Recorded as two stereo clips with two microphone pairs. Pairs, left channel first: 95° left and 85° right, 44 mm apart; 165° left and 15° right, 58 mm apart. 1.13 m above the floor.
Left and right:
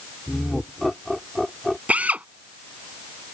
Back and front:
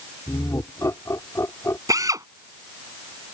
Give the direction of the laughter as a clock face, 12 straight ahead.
6 o'clock.